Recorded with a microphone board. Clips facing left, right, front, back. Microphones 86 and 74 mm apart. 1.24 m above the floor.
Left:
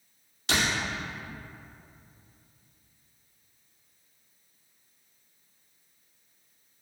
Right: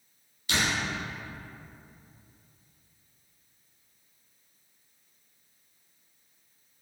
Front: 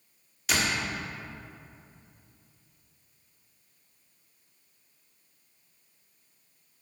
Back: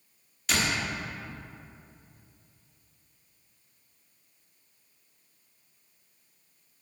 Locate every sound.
0.5 s a door slam: 90° left, 1.5 m